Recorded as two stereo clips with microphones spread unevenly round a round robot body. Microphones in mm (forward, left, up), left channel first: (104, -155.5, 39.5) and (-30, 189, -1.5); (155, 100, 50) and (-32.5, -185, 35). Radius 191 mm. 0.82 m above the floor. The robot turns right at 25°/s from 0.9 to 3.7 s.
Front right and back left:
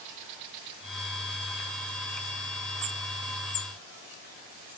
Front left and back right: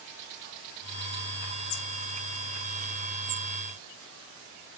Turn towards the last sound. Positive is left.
No sound to turn to.